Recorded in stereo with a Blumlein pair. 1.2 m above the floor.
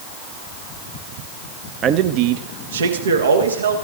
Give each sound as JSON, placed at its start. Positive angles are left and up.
{"t": 1.8, "sound": "a man speaking", "azimuth_deg": -25, "distance_m": 0.9}